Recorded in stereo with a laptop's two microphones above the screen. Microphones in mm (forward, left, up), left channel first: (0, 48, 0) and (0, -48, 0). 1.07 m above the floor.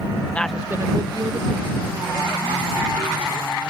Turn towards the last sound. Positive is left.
turn(degrees=-60)  # may be behind; listen again after turning